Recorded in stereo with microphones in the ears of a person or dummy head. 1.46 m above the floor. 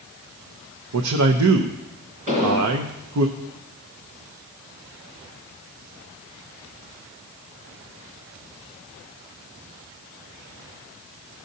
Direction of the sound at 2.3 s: 40° right (ahead or behind).